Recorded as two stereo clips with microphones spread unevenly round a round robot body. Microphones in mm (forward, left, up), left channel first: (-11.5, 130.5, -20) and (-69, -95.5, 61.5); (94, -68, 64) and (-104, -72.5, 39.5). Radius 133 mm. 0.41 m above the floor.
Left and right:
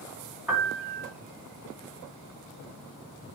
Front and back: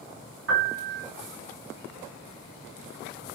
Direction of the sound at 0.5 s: 165° left.